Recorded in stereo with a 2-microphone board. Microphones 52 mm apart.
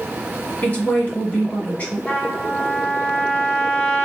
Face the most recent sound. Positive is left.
turn(degrees=25)  # may be behind; listen again after turning